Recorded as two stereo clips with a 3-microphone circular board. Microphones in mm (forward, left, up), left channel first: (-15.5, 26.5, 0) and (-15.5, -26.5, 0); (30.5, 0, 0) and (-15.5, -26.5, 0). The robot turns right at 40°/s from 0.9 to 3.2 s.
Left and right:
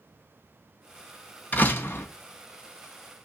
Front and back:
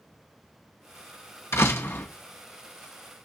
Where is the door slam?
40° left, 1.2 m; by 2.1 s 65° left, 1.2 m.